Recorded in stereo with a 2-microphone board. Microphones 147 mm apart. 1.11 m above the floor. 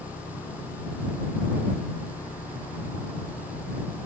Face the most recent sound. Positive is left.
turn(degrees=70)  # may be behind; listen again after turning